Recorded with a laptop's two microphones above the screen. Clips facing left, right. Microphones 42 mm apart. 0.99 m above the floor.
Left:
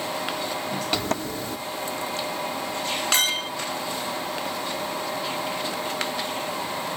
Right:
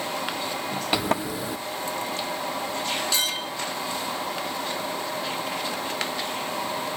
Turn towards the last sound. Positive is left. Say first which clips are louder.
# left 3 dB
turn(degrees=55)  # may be behind; listen again after turning